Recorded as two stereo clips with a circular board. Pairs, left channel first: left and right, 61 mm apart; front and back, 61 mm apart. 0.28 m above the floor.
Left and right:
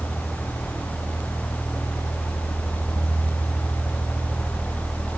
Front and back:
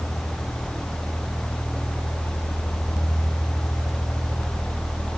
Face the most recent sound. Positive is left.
No sound to turn to.